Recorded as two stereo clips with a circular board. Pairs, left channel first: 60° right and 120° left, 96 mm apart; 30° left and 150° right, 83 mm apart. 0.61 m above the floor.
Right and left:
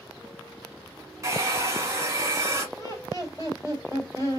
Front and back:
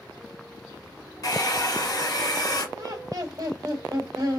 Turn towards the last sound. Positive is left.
turn(degrees=-110)